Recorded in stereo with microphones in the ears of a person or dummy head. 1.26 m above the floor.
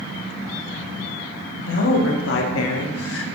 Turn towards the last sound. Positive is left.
turn(degrees=70)  # may be behind; listen again after turning